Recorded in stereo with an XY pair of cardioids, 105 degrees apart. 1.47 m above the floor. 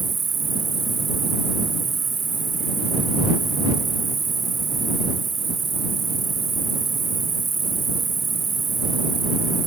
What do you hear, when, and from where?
0.0 s an insect: 35° right